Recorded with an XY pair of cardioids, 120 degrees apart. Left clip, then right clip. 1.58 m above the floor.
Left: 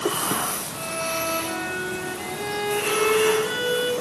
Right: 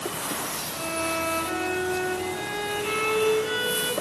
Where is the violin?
5° left, 5 m.